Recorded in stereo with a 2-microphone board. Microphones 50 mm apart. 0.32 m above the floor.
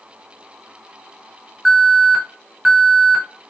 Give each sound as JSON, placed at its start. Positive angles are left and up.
{"t": 1.6, "sound": "an alarm", "side_deg": -5, "distance_m": 2.0}